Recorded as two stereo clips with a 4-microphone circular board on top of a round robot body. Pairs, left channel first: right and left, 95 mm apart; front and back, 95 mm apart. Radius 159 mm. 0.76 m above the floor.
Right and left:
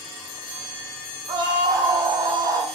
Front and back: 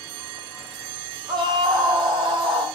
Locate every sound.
1.3 s a scream: 140° left, 7 m; by 2.7 s 145° left, 7 m